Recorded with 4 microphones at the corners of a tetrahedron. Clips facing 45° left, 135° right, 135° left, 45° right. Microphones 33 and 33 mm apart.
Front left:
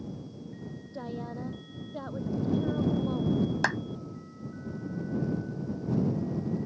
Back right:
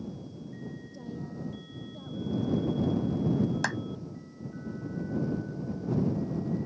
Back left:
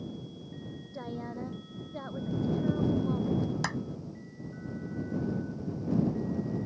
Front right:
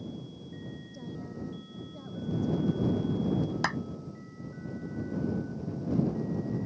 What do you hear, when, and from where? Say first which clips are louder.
0.9 s a woman speaking: front left 5 dB, back left 5 dB; 85° left
3.6 s a clap: front left 3 dB, front right 3 dB; 5° right